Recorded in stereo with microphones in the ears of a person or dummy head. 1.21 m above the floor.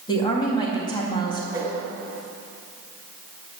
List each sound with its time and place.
0.1 s a woman speaking: 20° left (ahead or behind), 2 m
1.5 s a whoosh: 25° right (ahead or behind), 2.5 m